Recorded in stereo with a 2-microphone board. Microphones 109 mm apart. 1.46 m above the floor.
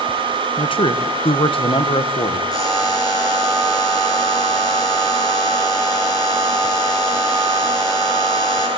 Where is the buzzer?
35° left (ahead or behind), 6 m.